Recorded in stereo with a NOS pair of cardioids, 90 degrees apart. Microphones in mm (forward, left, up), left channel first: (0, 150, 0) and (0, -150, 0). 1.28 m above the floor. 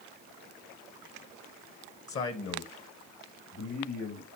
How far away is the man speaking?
About 1.6 m.